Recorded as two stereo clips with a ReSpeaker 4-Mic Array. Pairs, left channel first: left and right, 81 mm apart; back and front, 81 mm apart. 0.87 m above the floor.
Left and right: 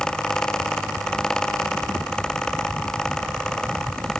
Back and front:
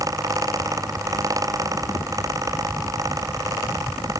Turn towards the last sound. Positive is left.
No sound to turn to.